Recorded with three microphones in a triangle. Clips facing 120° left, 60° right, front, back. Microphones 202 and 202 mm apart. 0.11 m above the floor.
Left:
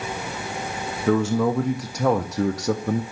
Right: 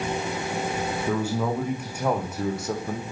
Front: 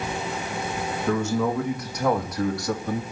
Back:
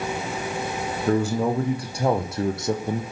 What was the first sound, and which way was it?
A man speaking, 125° left.